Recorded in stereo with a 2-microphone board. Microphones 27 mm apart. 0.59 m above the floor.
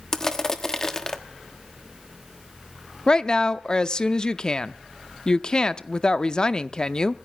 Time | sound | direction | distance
0.1 | crushing | 20° left (ahead or behind) | 1.2 m
3.1 | a woman speaking | 30° left (ahead or behind) | 0.7 m